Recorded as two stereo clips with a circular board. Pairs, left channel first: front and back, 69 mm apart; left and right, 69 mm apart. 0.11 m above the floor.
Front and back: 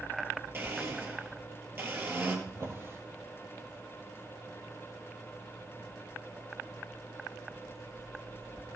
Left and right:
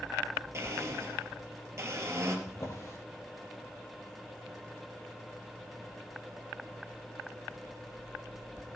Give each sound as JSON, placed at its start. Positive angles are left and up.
{"t": 0.5, "sound": "a blender", "azimuth_deg": -130, "distance_m": 2.5}
{"t": 2.5, "sound": "a drawer", "azimuth_deg": 135, "distance_m": 2.0}